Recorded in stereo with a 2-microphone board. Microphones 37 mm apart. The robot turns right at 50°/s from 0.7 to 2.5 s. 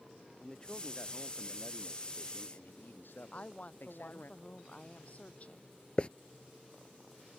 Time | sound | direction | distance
0.4 | a man speaking | 20° left | ?
3.3 | a woman speaking | 45° left (ahead or behind) | ?
6.0 | a hiss | 30° left (ahead or behind) | ?